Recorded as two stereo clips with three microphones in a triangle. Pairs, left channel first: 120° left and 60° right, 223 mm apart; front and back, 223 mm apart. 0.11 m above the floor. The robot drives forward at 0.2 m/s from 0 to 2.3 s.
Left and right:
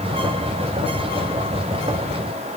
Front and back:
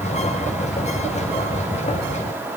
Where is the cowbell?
I don't hear a cowbell.